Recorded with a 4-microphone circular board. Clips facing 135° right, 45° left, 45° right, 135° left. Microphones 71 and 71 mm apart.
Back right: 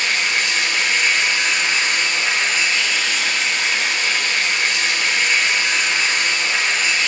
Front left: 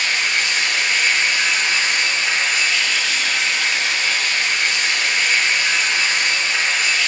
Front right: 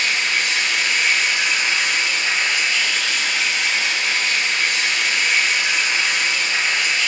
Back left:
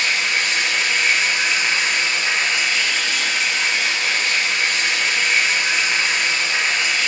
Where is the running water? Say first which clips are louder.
Even, even; 175° right, 3 m.